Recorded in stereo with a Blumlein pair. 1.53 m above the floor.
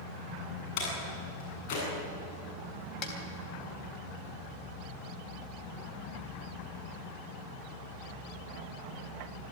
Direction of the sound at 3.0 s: 35° left.